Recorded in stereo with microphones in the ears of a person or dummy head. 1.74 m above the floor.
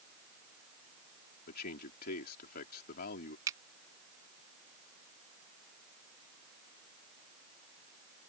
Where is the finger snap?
20° right (ahead or behind).